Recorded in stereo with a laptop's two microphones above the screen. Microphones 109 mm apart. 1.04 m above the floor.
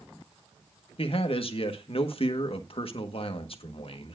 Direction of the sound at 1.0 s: 55° left (ahead or behind).